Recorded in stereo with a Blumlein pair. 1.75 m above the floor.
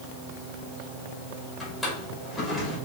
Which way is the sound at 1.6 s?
10° left.